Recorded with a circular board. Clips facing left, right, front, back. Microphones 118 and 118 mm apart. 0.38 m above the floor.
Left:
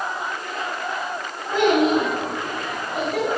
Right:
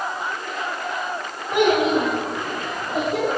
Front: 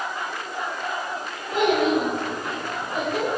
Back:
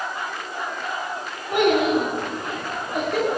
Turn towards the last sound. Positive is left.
turn(degrees=-155)